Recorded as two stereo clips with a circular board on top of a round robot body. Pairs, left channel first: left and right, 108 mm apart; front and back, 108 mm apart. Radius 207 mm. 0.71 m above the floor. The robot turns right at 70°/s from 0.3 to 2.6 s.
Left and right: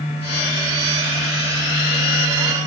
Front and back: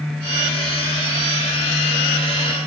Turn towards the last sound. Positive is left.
No sound to turn to.